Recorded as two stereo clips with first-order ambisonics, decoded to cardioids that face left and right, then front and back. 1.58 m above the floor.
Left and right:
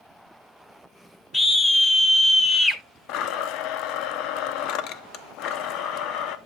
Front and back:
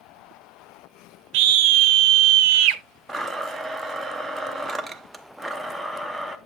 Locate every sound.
1.3 s a scream: 165° left, 0.8 m
3.1 s a blender: 95° left, 0.6 m